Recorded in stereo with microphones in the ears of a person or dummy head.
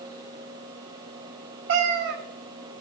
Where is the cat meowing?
55° right (ahead or behind), 0.9 m.